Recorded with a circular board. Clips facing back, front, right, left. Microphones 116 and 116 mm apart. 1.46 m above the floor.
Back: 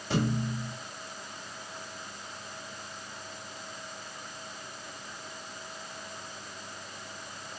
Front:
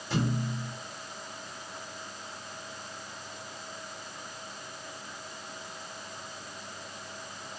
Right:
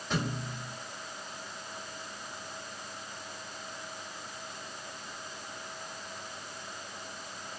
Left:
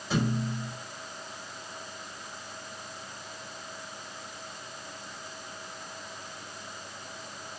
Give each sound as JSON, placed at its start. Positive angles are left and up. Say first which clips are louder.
{"t": 0.1, "sound": "a thud", "louder": "back 1 dB, left 5 dB", "azimuth_deg": 175, "distance_m": 5.5}